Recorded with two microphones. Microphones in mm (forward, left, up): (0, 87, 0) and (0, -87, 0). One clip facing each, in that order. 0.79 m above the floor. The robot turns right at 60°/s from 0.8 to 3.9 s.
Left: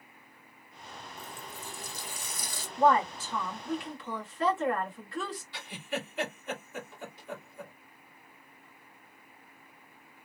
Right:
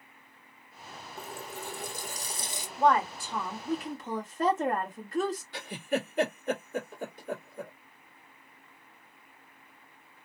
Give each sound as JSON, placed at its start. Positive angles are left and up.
{"t": 1.2, "sound": "a running tap", "azimuth_deg": -105, "distance_m": 0.7}
{"t": 2.8, "sound": "a woman speaking", "azimuth_deg": 170, "distance_m": 1.4}
{"t": 5.5, "sound": "a giggle", "side_deg": -50, "distance_m": 1.8}